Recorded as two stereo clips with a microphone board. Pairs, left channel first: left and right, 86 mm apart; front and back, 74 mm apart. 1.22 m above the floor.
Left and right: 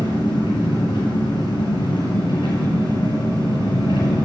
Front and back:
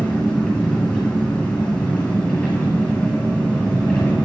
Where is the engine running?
75° left, 9 m.